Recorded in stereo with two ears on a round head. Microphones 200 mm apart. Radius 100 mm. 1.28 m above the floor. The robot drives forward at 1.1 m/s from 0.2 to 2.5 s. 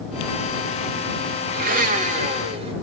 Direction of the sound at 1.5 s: 45° right (ahead or behind).